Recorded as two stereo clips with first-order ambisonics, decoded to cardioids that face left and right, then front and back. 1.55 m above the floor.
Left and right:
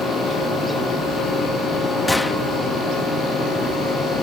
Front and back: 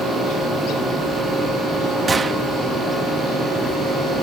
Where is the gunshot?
160° left.